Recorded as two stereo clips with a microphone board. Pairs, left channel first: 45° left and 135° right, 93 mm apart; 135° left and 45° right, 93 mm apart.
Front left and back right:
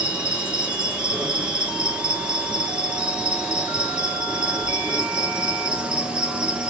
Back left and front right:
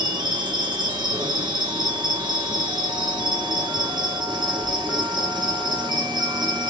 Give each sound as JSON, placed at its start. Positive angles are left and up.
{"t": 0.0, "sound": "an insect", "azimuth_deg": -60, "distance_m": 1.3}